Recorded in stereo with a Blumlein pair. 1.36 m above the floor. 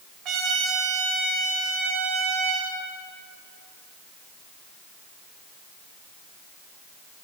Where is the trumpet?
35° right, 6.5 m.